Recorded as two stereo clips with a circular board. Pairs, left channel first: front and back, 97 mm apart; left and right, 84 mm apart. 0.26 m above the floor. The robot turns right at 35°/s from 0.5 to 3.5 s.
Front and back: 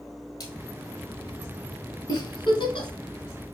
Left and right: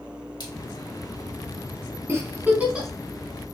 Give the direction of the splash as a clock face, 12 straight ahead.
10 o'clock.